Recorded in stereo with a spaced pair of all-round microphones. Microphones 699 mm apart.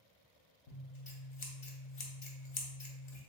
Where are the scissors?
45° left (ahead or behind), 0.7 m.